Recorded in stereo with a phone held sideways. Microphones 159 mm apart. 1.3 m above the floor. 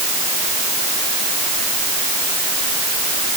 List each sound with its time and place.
Only background noise.